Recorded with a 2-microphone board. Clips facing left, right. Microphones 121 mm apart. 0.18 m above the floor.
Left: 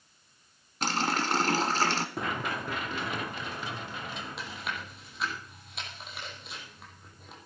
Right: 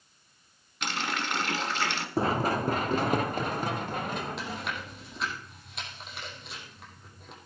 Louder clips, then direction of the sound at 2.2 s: Right 7 dB; 30° right (ahead or behind).